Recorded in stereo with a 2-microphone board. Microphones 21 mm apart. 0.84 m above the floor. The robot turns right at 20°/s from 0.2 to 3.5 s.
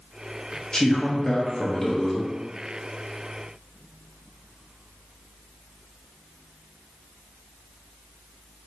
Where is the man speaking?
140° left, 1.1 m; by 2.3 s 170° left, 1.1 m.